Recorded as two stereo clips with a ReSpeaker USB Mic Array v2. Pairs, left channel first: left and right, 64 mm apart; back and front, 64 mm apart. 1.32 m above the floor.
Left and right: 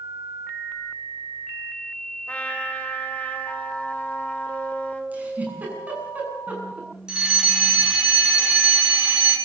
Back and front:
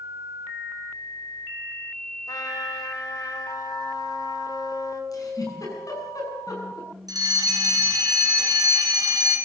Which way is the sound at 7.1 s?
10° right.